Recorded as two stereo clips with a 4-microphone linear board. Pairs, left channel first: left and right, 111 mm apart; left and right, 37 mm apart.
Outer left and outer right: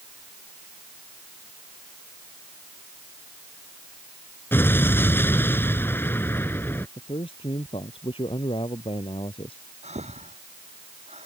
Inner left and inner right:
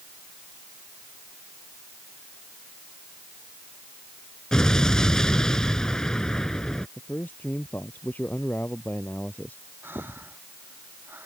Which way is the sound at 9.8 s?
80° right.